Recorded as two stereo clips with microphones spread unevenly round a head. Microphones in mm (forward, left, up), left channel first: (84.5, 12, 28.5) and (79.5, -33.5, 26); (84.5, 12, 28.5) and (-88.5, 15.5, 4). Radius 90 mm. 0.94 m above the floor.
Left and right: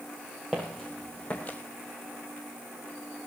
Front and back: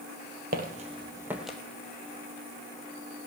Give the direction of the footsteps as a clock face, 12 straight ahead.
6 o'clock.